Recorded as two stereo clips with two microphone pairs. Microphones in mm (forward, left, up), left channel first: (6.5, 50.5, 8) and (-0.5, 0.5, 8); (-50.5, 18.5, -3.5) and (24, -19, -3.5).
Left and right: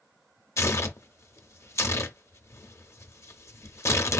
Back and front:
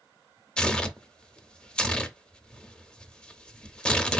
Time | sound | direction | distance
0.6 | tearing paper | 75° left | 0.5 m